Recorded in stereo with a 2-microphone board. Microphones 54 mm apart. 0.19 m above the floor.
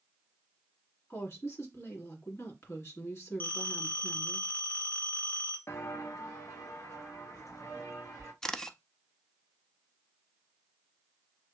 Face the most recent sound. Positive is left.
turn(degrees=10)  # may be behind; listen again after turning